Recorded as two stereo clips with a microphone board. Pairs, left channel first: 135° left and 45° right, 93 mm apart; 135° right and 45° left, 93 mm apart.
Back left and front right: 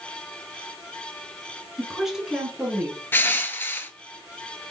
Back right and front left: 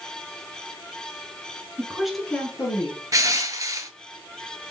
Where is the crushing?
80° left, 0.6 m.